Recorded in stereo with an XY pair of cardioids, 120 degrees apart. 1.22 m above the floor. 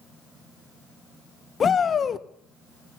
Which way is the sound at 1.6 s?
35° left.